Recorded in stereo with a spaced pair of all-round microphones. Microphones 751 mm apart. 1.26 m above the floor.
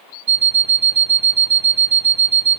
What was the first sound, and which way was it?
An alarm clock, 55° right (ahead or behind).